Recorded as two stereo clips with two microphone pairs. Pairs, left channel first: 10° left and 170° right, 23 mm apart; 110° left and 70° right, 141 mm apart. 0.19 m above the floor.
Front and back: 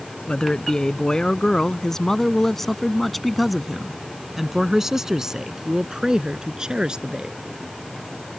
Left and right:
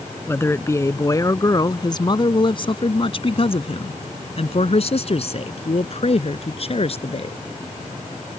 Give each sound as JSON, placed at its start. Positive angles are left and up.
{"t": 0.3, "sound": "a man speaking", "azimuth_deg": 45}